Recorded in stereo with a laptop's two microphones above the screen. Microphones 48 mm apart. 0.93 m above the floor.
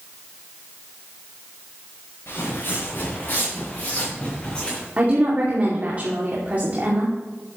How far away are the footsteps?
About 5 m.